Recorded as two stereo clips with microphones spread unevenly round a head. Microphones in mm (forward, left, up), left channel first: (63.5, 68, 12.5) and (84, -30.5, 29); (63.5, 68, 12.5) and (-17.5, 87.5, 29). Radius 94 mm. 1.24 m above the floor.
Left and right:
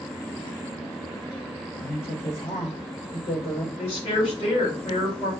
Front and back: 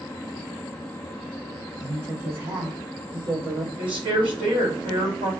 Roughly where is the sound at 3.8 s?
Behind left.